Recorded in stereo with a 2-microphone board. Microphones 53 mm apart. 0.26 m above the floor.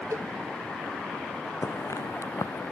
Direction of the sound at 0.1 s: 70° right (ahead or behind).